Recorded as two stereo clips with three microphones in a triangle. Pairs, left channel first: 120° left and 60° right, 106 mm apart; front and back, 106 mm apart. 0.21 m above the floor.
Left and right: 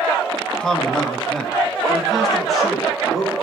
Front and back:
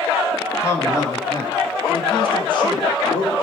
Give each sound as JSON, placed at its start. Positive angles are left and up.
{"t": 0.6, "sound": "a man speaking", "azimuth_deg": 45, "distance_m": 1.3}